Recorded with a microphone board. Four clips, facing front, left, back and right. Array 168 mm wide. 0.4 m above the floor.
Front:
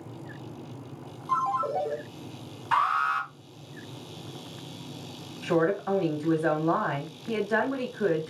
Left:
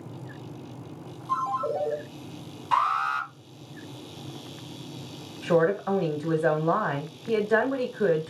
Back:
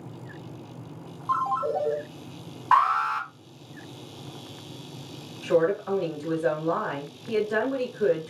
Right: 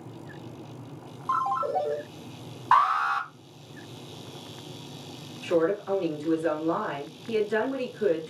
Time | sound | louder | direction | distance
1.3 | a ringtone | right 1 dB, back 1 dB | 130° right | 1.5 m
2.7 | an alarm | right 3 dB, back 4 dB | 135° right | 2.5 m
5.4 | a woman speaking | left 2 dB, back 2 dB | 75° left | 1.5 m